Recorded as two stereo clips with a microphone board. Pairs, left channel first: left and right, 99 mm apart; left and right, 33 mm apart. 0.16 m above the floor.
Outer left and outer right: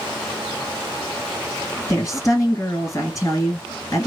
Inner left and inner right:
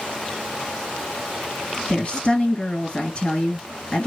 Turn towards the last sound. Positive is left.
turn(degrees=35)  # may be behind; listen again after turning